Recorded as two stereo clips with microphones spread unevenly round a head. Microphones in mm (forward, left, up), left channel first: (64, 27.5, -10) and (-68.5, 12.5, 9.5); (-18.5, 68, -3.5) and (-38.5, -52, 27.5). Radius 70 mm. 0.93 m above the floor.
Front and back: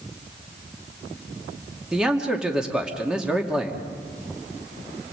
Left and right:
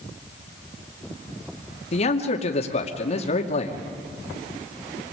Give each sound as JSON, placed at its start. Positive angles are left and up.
{"t": 1.9, "sound": "a man speaking", "azimuth_deg": 100, "distance_m": 2.5}